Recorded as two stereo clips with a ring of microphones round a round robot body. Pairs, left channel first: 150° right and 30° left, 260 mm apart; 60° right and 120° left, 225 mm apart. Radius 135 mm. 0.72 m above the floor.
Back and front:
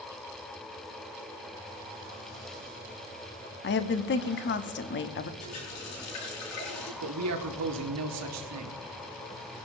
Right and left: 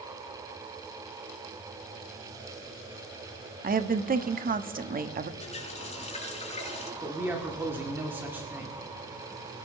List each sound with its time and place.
3.6 s a woman speaking: 170° left, 1.1 m
5.4 s a running tap: 120° right, 5 m
7.0 s a man speaking: 40° left, 2 m